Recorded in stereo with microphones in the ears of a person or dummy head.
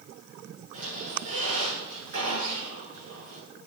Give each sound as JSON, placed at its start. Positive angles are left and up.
{"t": 0.7, "sound": "a squeak", "side_deg": -45, "distance_m": 8.0}